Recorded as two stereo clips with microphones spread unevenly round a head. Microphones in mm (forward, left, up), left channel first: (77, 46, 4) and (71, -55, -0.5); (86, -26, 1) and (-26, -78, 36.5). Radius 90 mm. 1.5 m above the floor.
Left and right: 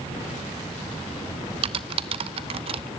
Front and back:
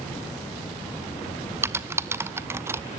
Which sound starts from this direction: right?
Typing on a keyboard, at 1.6 s.